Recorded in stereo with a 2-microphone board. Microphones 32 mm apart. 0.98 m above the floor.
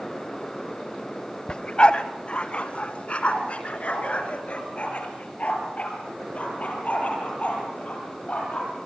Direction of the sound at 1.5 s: 35° left (ahead or behind).